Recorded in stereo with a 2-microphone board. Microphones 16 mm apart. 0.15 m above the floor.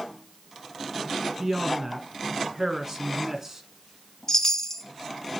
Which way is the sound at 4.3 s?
30° left (ahead or behind).